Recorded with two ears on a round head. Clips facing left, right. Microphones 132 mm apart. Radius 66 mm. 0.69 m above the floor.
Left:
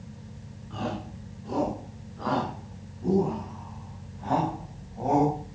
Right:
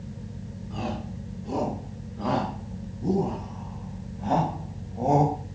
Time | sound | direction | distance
0.7 | a shout | 15° right (ahead or behind) | 7 m